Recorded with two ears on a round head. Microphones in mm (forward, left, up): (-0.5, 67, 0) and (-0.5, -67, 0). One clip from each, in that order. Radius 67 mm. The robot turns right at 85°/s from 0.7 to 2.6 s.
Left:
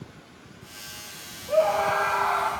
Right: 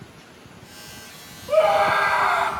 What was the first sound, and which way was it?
A scream, 125° right.